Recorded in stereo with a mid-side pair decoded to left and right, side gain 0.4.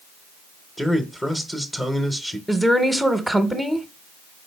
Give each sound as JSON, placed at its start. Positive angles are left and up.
{"t": 0.8, "sound": "a man speaking", "azimuth_deg": 15, "distance_m": 0.7}
{"t": 2.5, "sound": "a woman speaking", "azimuth_deg": -5, "distance_m": 0.7}